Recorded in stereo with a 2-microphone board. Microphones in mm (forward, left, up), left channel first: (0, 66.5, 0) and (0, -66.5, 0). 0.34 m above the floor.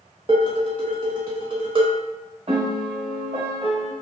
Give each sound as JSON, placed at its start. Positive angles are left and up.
{"t": 0.3, "sound": "dishes clattering", "side_deg": -35, "distance_m": 0.8}
{"t": 2.5, "sound": "a piano", "side_deg": -50, "distance_m": 0.8}